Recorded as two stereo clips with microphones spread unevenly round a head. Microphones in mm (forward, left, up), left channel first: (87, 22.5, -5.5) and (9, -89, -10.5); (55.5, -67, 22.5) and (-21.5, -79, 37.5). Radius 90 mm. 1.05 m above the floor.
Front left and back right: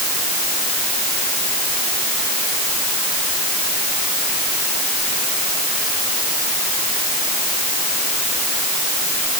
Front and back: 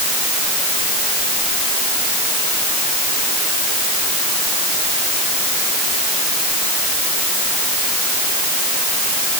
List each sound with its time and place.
Only background noise.